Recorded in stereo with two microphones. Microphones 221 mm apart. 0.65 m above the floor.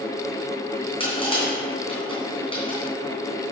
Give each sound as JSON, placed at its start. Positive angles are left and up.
{"t": 1.0, "sound": "crushing", "side_deg": 25, "distance_m": 3.0}